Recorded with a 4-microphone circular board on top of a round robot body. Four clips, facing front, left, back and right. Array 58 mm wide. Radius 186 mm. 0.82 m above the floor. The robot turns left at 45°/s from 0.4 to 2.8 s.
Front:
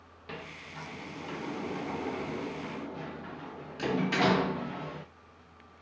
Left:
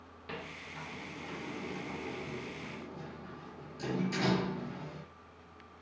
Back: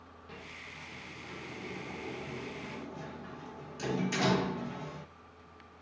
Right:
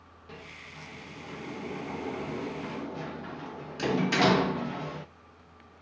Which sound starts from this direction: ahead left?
A sliding door, at 0.3 s.